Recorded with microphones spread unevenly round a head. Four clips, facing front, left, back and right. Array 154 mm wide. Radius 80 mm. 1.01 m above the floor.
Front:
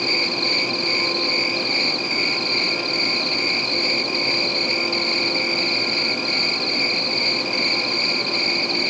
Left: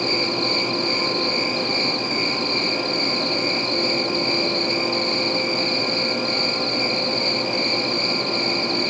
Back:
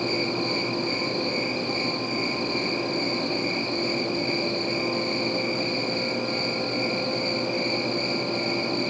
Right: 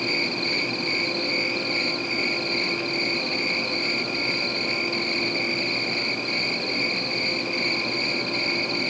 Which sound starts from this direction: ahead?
An insect, at 0.0 s.